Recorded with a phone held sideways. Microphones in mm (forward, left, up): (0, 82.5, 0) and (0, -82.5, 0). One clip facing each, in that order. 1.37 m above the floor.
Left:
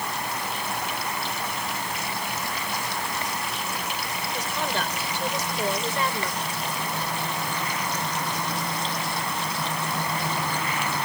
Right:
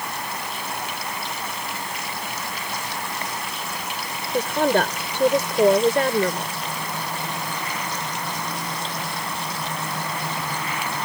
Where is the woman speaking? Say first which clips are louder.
Right 11 dB; 60° right (ahead or behind).